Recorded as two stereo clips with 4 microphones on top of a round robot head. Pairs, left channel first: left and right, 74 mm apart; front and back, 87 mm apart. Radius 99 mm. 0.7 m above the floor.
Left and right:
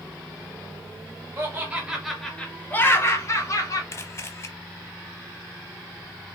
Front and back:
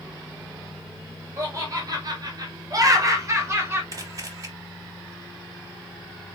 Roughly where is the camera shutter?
Behind left.